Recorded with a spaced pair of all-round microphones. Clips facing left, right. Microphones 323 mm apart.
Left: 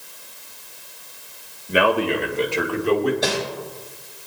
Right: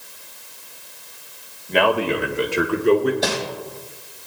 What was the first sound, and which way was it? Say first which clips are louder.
A man speaking: even; 15° left (ahead or behind).